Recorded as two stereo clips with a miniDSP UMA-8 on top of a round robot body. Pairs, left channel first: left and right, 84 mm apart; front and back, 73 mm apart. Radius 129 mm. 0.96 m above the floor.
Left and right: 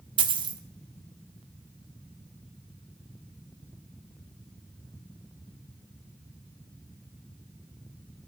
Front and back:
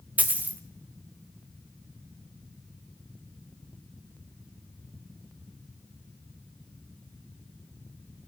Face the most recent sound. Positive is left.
turn(degrees=-110)